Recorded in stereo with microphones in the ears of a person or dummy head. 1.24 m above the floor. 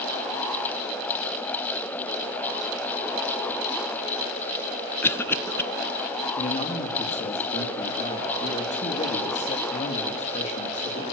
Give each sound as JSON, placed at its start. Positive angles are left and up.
{"t": 5.0, "sound": "a cough", "side_deg": 10, "distance_m": 0.9}
{"t": 6.4, "sound": "a man speaking", "side_deg": 35, "distance_m": 2.0}